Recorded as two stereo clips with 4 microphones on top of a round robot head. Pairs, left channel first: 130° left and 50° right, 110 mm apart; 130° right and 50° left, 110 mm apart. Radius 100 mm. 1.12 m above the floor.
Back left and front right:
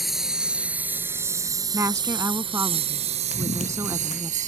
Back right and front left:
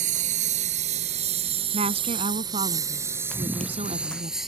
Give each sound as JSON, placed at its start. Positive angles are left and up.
{"t": 0.0, "sound": "a lawn mower", "azimuth_deg": 40}
{"t": 1.7, "sound": "a woman speaking", "azimuth_deg": 15}
{"t": 3.3, "sound": "running footsteps", "azimuth_deg": 150}